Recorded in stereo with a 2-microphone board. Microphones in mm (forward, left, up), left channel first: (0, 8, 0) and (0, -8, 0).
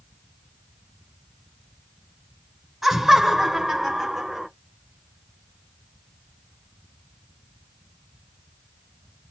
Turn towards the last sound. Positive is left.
turn(degrees=-35)  # may be behind; listen again after turning